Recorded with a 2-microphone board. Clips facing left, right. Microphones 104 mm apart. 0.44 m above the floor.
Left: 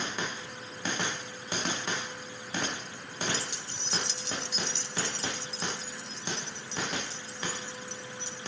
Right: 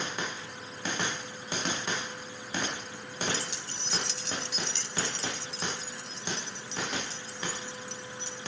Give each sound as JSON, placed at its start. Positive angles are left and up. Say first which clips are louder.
{"t": 3.3, "sound": "keys jangling", "louder": "even", "side_deg": -60, "distance_m": 1.1}